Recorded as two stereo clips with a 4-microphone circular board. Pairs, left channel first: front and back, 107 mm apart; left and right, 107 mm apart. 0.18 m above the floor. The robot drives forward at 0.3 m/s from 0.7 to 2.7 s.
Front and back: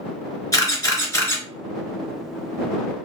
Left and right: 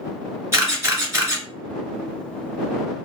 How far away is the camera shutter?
About 1.4 m.